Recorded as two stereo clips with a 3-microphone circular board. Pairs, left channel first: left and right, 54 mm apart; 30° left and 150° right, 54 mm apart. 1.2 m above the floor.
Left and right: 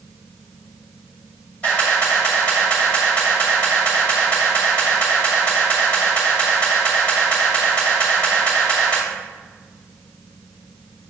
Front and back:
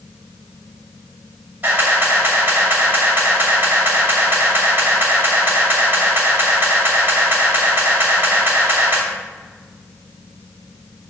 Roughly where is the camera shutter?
Behind left.